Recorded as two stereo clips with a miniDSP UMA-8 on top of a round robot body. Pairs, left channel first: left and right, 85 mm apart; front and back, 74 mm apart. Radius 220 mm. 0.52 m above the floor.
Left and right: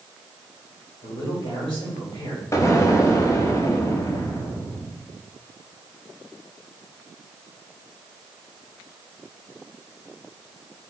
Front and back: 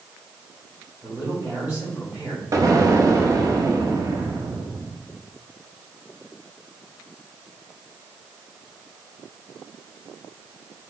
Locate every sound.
1.0 s a man speaking: 110° left, 4 m
2.5 s an explosion: 140° left, 1.7 m